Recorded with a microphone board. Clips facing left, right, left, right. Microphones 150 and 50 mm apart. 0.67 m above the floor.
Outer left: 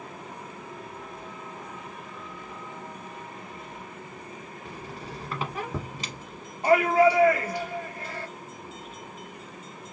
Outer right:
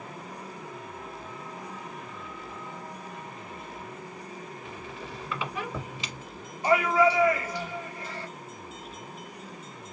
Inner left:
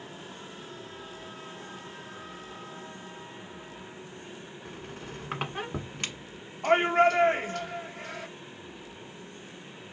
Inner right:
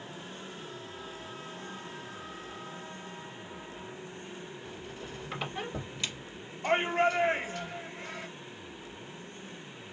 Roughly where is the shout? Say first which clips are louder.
Outer left 3 dB, inner left 5 dB; left.